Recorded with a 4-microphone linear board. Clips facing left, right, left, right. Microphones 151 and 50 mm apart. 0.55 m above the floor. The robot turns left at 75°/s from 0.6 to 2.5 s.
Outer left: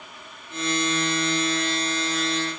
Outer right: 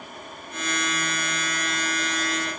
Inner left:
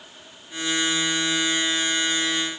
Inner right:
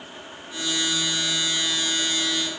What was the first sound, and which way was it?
Only background noise.